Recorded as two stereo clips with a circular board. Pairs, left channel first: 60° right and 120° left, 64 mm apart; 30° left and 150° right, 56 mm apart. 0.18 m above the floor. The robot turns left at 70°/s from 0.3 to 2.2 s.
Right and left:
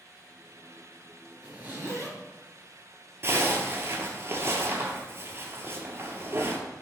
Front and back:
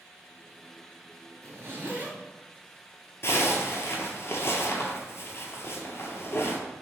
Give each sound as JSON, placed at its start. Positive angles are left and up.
{"t": 1.4, "sound": "a zipper", "azimuth_deg": -165, "distance_m": 1.1}
{"t": 3.2, "sound": "a zipper", "azimuth_deg": 70, "distance_m": 0.8}